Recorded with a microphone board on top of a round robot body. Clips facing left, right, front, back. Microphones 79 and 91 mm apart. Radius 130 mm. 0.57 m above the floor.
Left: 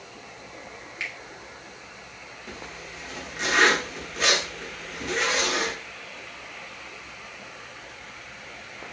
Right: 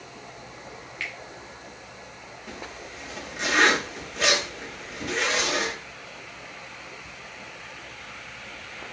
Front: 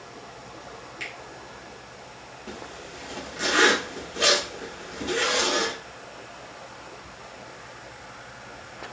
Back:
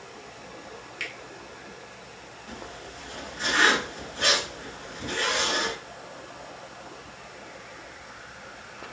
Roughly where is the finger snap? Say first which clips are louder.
Even, back 1 dB; behind.